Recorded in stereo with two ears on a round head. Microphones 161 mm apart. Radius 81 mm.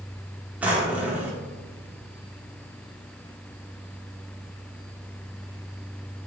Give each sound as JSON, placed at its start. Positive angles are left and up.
{"t": 0.6, "sound": "a drawer", "side_deg": -10, "distance_m": 0.5}